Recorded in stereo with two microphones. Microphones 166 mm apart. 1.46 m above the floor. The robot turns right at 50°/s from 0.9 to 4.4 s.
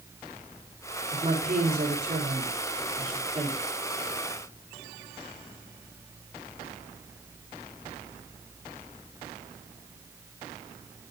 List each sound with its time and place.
1.1 s a woman speaking: 155° right, 4 m; by 3.7 s 25° right, 4 m